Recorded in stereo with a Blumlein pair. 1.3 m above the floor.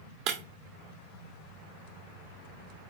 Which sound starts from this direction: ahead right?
Breaking glass, at 0.3 s.